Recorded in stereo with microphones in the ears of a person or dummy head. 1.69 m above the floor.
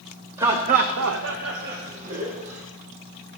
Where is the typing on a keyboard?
No typing on a keyboard in this recording.